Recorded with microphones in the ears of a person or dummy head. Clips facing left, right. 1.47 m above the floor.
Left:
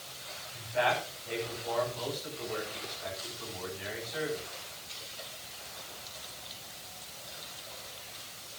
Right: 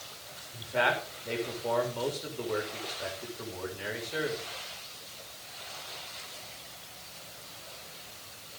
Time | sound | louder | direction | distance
0.5 | a man speaking | even | 55° right (ahead or behind) | 7 m